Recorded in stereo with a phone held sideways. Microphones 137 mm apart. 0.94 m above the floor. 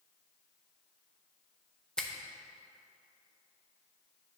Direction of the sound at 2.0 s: 5° left (ahead or behind).